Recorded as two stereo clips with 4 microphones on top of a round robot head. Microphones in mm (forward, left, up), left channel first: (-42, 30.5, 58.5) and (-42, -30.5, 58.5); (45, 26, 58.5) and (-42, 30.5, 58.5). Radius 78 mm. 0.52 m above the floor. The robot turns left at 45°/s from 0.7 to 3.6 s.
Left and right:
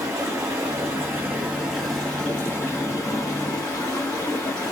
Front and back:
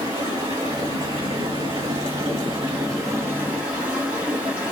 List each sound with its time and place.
0.0 s running water: 130° right, 2.0 m; by 4.7 s 100° left, 2.0 m